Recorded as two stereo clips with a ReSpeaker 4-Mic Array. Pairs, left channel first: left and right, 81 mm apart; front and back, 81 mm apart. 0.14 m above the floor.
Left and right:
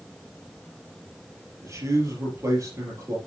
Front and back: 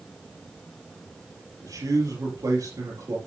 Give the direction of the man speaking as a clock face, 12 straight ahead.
5 o'clock.